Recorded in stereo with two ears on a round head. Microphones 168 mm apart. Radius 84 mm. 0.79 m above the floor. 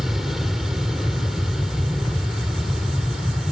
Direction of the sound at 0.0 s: Centre (ahead or behind).